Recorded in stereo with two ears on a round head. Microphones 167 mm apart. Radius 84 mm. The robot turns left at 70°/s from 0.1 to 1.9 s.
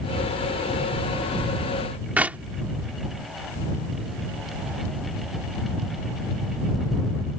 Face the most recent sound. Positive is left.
turn(degrees=-10)  # may be behind; listen again after turning